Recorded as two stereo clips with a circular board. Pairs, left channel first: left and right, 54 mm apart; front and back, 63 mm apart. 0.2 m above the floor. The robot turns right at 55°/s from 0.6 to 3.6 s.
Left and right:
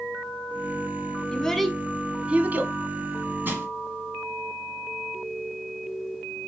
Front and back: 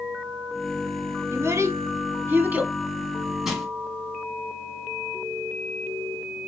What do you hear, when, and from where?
1.3 s a child speaking: 160° left, 0.7 m; by 2.7 s 120° right, 0.7 m
3.5 s crushing: 95° right, 1.9 m; by 3.7 s 90° right, 1.9 m